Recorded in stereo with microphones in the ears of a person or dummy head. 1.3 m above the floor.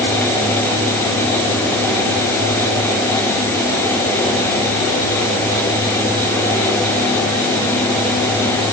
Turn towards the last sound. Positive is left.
No sound to turn to.